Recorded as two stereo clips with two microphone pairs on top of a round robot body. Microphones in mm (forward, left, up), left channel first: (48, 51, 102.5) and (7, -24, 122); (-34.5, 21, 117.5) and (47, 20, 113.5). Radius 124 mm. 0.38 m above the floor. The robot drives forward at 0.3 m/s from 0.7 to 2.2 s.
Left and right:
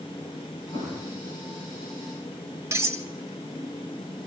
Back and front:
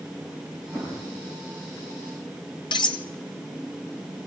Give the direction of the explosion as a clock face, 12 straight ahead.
4 o'clock.